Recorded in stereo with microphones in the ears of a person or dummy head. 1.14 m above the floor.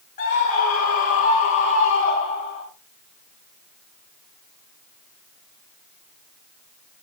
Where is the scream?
50° left (ahead or behind), 4.5 m; by 2.6 s 40° left (ahead or behind), 6.5 m.